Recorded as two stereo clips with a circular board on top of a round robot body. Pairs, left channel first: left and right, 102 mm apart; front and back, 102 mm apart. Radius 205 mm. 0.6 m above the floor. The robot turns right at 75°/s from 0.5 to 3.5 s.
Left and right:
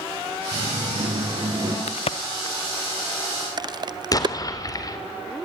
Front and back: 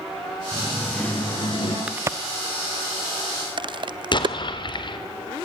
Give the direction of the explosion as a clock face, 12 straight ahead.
11 o'clock.